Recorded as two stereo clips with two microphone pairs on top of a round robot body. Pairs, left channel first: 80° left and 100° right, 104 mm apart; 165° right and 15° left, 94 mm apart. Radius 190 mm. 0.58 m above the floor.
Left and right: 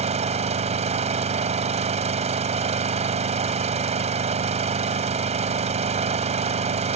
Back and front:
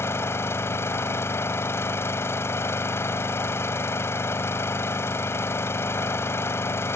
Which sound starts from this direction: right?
An engine running, at 0.0 s.